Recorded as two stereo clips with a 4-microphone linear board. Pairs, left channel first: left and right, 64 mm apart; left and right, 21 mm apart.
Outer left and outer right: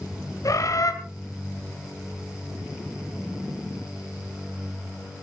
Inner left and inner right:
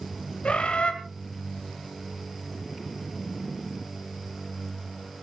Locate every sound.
0.4 s a bird: 65° left (ahead or behind), 2 m